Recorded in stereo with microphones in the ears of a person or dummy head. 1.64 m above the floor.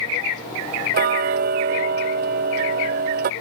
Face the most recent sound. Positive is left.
turn(degrees=-45)  # may be behind; listen again after turning